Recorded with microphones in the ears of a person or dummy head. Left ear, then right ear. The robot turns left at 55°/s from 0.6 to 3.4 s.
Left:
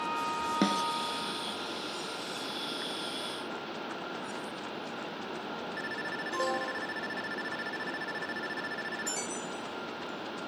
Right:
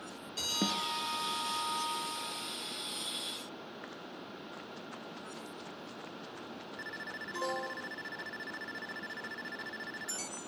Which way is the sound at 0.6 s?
85° left.